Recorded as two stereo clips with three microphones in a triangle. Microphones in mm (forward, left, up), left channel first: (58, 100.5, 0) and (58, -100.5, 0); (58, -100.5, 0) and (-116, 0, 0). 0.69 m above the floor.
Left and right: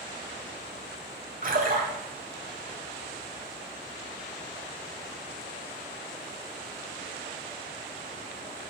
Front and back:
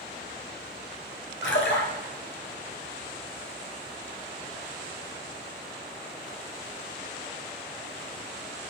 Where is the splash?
45° right, 1.2 m.